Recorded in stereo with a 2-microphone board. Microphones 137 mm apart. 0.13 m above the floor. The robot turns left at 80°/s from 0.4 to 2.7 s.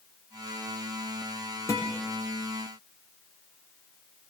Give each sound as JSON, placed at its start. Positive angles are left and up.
{"t": 1.7, "sound": "a guitar", "side_deg": 20, "distance_m": 6.0}